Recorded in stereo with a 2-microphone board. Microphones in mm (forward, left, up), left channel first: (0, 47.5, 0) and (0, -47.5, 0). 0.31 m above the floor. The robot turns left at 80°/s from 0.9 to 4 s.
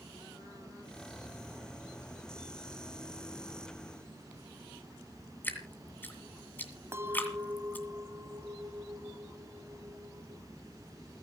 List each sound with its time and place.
5.4 s dripping: 20° left (ahead or behind), 2 m
6.9 s a clink: 30° right (ahead or behind), 1.2 m